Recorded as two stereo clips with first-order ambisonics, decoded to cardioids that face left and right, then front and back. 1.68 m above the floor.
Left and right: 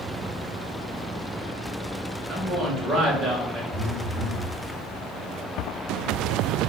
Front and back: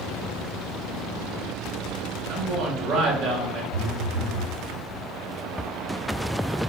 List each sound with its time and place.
2.3 s a man speaking: 145° right, 2 m
3.7 s a phone buzzing: 135° left, 1.1 m